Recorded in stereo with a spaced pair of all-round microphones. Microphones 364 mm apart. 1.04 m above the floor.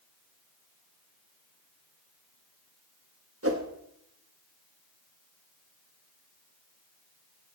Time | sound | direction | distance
3.4 | a whoosh | 40° right (ahead or behind) | 1.3 m